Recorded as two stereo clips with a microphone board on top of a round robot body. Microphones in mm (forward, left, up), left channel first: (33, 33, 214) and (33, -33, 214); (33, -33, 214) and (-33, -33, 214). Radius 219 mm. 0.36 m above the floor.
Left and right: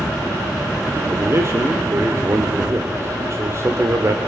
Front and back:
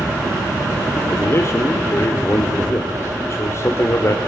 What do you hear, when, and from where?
1.1 s a man speaking: 45° right, 1.6 m